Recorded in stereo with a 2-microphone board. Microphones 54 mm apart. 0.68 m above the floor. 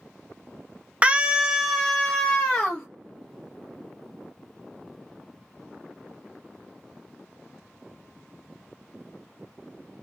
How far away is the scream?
About 0.6 m.